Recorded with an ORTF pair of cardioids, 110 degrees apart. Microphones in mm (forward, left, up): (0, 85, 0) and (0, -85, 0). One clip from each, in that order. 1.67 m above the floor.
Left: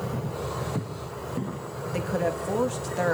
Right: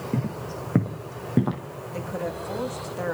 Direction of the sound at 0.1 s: 70° right.